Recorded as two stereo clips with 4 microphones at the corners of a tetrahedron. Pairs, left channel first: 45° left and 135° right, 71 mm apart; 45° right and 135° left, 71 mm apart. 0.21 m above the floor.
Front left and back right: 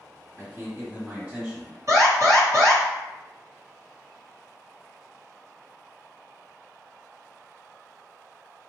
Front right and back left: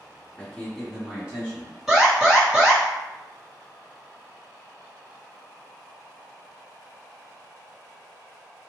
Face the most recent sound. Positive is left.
turn(degrees=-140)